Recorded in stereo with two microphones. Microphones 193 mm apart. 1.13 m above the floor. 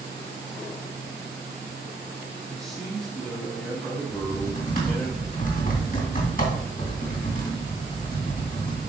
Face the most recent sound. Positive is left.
turn(degrees=50)  # may be behind; listen again after turning